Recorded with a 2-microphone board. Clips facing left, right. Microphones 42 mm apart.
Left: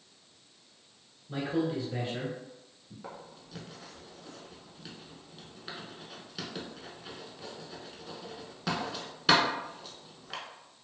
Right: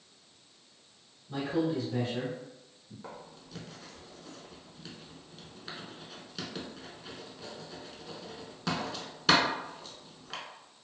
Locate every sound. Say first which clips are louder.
1.3 s a man speaking: even; 20° left (ahead or behind), 1.2 m
3.0 s writing: left 1 dB; 5° left (ahead or behind), 0.6 m